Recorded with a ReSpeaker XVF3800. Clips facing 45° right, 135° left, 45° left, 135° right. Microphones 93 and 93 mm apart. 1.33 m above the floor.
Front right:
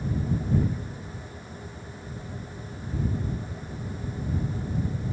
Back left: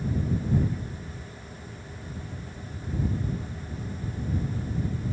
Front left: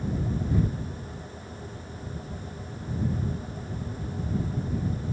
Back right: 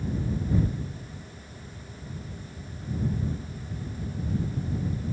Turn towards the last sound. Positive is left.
No sound to turn to.